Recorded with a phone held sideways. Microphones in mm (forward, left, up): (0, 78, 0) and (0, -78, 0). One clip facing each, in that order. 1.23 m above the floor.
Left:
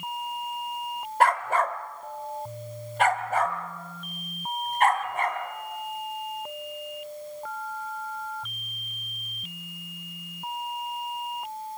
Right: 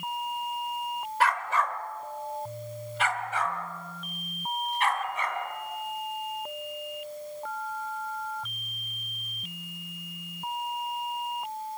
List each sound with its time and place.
1.2 s a dog barking: 50° left (ahead or behind), 1.2 m